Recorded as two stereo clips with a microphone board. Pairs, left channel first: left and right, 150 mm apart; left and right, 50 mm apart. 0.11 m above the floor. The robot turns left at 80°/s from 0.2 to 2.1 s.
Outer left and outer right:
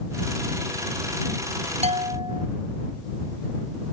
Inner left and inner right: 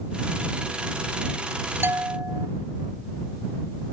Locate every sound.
1.8 s a bell: 50° right (ahead or behind); by 2.5 s 40° right (ahead or behind)